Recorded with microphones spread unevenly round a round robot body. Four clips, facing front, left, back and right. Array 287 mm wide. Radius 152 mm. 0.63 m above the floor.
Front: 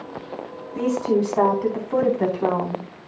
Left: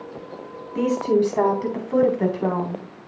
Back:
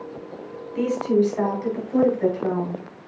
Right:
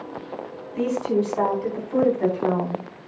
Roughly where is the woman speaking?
Ahead left.